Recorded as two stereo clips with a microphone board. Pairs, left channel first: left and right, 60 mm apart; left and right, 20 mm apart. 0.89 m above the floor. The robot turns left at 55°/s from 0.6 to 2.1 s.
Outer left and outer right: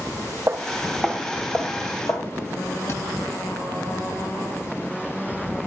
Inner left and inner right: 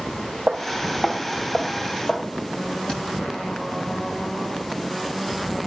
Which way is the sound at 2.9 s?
50° left (ahead or behind).